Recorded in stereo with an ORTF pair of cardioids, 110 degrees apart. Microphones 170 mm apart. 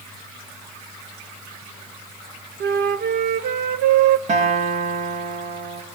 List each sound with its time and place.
2.6 s a flute: 70° right, 1.3 m
4.3 s a guitar: 45° right, 5 m